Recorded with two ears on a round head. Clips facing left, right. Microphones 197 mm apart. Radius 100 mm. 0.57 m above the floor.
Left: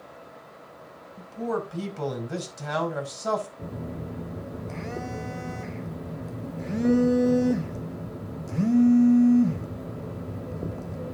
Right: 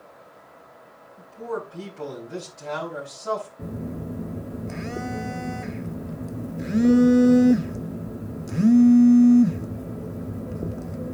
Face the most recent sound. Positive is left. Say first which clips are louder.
# right 3 dB
turn(degrees=-15)  # may be behind; listen again after turning